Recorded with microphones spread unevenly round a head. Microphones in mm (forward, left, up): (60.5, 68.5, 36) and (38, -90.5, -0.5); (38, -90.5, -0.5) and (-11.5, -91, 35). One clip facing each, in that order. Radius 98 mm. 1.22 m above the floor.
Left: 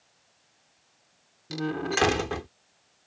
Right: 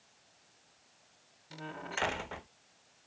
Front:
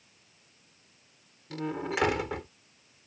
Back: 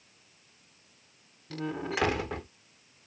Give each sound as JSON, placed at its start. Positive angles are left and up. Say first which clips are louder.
{"t": 1.5, "sound": "a door slam", "louder": "left 15 dB, front 1 dB", "azimuth_deg": 90}